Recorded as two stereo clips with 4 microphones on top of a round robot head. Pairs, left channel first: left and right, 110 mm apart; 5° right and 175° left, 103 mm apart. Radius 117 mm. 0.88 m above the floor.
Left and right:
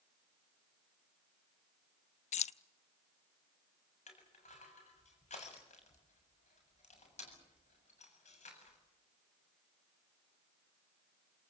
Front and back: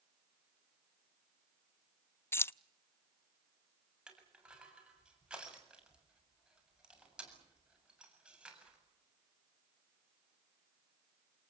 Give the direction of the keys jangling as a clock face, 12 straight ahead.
10 o'clock.